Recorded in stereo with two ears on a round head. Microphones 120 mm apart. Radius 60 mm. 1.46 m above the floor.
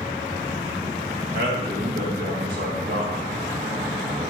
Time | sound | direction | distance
1.3 | a man speaking | 70° right (ahead or behind) | 1.5 m